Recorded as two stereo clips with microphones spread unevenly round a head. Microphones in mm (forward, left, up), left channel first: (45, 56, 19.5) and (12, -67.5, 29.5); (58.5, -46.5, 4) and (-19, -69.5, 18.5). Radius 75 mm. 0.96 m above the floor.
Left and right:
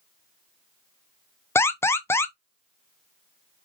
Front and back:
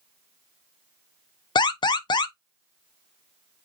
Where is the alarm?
5° left, 0.5 m.